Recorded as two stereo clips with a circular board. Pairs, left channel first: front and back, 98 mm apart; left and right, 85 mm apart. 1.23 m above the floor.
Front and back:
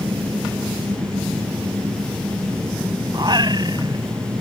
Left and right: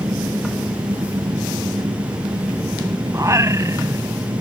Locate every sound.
0.0 s an engine running: 125° right
3.1 s singing: 140° right